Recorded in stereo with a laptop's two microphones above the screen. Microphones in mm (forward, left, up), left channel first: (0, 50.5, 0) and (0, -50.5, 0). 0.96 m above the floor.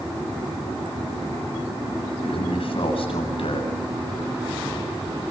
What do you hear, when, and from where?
2.2 s a man speaking: 65° left (ahead or behind), 8.5 m